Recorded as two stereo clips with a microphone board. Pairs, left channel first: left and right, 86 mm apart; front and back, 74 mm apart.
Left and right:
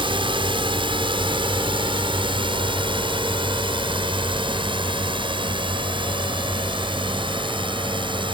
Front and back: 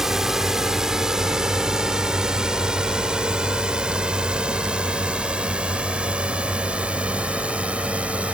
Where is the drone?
95° right; by 8.3 s 105° right.